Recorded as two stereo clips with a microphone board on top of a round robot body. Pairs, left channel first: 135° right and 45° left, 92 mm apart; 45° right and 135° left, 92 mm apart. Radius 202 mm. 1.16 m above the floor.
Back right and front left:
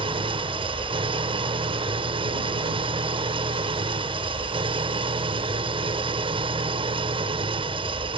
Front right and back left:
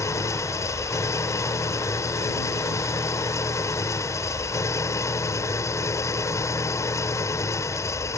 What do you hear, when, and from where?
0.0 s an engine running: 15° left